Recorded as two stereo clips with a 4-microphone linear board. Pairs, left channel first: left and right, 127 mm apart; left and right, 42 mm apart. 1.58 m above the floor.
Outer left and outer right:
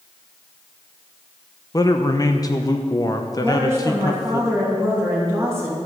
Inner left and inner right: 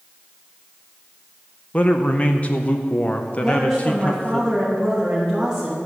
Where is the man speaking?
30° left (ahead or behind), 0.8 m.